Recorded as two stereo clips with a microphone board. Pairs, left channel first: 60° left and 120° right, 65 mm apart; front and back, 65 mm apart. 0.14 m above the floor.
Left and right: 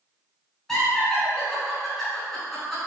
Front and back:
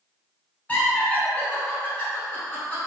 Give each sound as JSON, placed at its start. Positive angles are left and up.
{"t": 0.7, "sound": "laughter", "azimuth_deg": -15, "distance_m": 1.2}